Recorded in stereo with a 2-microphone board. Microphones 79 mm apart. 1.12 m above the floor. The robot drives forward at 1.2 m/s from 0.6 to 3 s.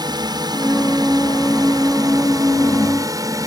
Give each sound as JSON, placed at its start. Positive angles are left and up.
{"t": 0.0, "sound": "a drone", "side_deg": -60}